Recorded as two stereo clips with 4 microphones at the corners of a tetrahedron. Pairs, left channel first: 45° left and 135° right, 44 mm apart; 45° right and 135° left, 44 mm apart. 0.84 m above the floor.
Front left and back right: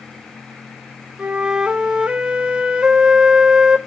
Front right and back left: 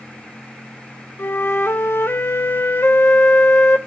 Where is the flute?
65° right, 0.9 m.